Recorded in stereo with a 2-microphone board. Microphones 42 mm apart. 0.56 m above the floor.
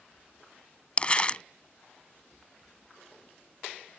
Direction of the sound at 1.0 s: 30° left (ahead or behind).